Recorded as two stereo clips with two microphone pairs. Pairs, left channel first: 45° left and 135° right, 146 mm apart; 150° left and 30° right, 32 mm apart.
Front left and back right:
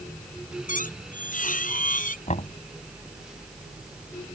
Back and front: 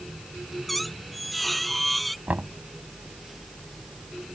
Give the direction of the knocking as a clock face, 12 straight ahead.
12 o'clock.